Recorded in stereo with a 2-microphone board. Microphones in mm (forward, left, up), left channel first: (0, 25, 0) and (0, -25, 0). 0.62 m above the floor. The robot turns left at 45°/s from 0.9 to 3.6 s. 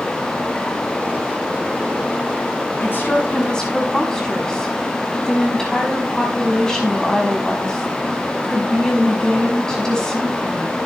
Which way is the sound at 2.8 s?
50° left.